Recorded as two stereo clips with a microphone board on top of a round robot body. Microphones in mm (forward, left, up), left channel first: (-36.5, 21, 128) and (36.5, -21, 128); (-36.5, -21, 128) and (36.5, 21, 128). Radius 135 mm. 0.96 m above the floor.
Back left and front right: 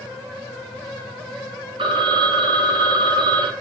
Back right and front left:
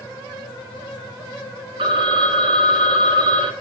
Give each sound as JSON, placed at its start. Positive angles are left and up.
{"t": 1.8, "sound": "a phone ringing", "azimuth_deg": 0, "distance_m": 1.4}